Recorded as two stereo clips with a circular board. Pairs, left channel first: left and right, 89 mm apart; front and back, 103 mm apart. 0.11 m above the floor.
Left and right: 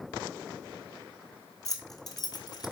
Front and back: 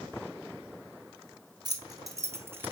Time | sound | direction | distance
1.6 | keys jangling | 135° left | 1.8 m